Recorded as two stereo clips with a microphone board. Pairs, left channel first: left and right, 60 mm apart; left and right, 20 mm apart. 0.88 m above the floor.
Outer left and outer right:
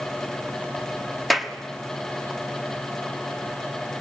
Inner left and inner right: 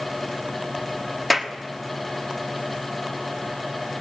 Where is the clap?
Centre (ahead or behind), 1.3 m.